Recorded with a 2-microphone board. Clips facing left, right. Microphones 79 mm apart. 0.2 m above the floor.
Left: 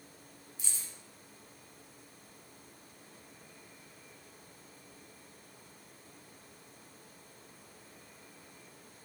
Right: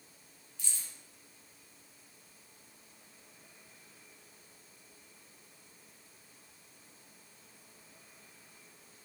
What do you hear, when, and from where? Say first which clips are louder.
0.6 s keys jangling: even; 15° left (ahead or behind), 1.1 m